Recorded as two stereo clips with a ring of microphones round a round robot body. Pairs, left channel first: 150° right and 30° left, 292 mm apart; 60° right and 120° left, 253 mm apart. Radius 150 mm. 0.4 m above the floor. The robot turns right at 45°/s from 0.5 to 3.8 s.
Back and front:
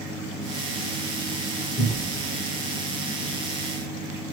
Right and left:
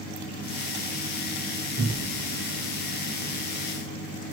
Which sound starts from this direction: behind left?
A cupboard door, at 1.8 s.